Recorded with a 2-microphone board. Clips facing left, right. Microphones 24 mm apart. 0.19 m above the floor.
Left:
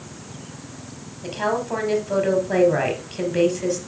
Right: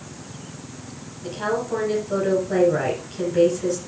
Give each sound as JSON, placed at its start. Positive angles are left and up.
{"t": 1.2, "sound": "a woman speaking", "side_deg": 35, "distance_m": 4.0}